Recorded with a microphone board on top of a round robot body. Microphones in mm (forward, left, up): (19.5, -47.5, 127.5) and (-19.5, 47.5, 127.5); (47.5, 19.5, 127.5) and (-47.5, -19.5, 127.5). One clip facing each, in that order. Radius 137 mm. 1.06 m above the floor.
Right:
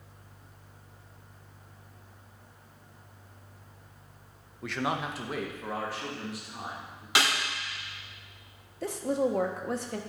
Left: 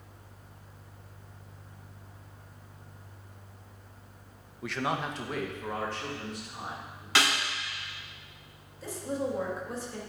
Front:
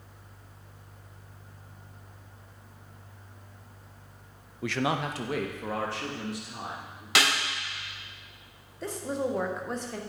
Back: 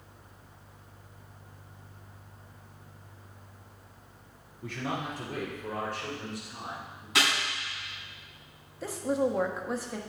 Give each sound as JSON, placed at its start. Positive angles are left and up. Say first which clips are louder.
{"t": 4.6, "sound": "a man speaking", "louder": "even, front 6 dB", "azimuth_deg": 25, "distance_m": 0.5}
{"t": 7.2, "sound": "a snare drum", "louder": "even, front 2 dB", "azimuth_deg": 10, "distance_m": 4.5}
{"t": 8.8, "sound": "a woman speaking", "louder": "right 5 dB, back 3 dB", "azimuth_deg": -75, "distance_m": 1.1}